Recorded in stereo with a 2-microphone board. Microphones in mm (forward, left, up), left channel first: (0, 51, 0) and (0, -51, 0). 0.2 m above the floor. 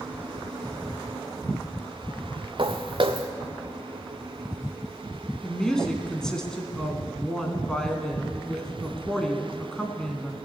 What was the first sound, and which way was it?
Footsteps, 55° right (ahead or behind).